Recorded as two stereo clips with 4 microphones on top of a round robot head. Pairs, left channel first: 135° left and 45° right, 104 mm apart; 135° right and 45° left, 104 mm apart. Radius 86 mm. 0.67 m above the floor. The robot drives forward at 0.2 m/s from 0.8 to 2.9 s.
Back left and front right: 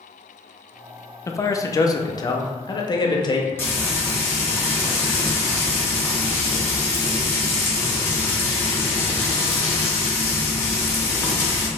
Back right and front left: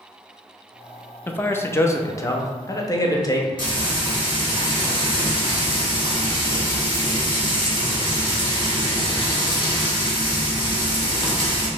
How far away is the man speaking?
About 0.5 m.